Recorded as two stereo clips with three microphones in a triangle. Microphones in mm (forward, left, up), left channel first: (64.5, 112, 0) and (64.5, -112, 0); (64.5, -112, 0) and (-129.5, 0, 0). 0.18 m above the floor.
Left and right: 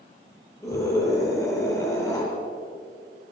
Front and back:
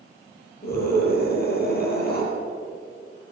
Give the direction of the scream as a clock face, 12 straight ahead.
12 o'clock.